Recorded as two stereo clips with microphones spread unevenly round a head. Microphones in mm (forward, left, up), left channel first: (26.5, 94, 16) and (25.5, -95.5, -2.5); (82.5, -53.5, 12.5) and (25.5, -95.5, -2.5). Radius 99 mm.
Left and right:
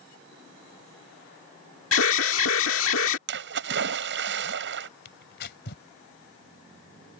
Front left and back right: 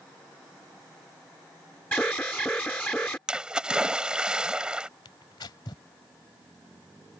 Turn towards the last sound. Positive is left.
turn(degrees=60)